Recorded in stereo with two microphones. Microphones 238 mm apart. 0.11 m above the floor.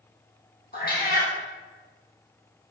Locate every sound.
0.7 s a cat meowing: 40° left (ahead or behind), 1.2 m